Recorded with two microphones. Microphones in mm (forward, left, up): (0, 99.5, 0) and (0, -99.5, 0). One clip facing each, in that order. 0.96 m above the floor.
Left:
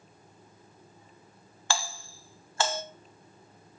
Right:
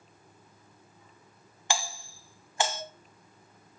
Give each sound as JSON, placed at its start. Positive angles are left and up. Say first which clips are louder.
{"t": 1.7, "sound": "a doorbell", "louder": "even", "side_deg": -20, "distance_m": 1.2}